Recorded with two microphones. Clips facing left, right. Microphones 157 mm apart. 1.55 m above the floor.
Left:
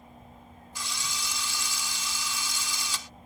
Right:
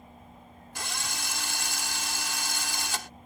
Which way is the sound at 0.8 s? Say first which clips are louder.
Right 1 dB; 65° right (ahead or behind).